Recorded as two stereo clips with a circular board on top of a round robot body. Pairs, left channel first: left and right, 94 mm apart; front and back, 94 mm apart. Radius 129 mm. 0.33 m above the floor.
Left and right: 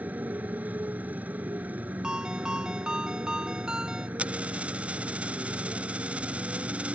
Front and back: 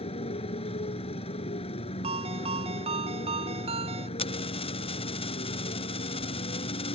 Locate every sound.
0.0 s a motorcycle: 15° right
2.0 s a ringtone: 170° right
4.2 s a dropped coin: 10° right